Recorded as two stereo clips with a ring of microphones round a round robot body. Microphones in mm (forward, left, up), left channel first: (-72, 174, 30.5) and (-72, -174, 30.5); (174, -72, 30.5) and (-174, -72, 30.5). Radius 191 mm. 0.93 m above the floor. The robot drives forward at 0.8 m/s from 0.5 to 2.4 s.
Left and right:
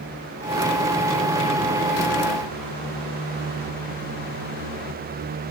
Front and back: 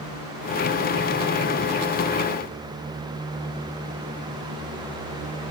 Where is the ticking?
I don't hear ticking.